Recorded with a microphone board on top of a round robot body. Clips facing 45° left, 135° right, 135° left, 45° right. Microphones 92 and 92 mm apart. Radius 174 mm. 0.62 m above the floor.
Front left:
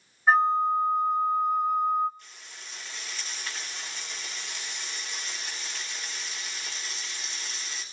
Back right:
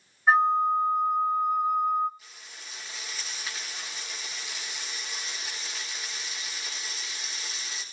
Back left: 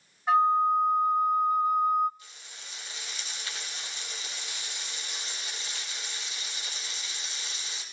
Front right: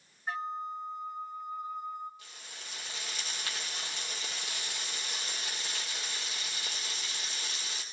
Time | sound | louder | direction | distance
0.3 | a flute | even, back left 14 dB | 135° left | 0.6 m
2.2 | frying | even, front right 1 dB | 50° right | 4.5 m